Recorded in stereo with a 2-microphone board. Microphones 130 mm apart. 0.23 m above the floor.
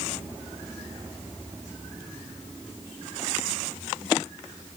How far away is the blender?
No blender in this recording.